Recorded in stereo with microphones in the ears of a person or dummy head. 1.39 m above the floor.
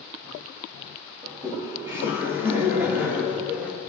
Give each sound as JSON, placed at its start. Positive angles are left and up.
{"t": 1.2, "sound": "laughter", "side_deg": -20, "distance_m": 1.9}